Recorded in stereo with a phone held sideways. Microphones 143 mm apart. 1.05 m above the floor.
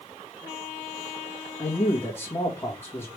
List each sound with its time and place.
1.6 s a man speaking: 20° left (ahead or behind), 1.4 m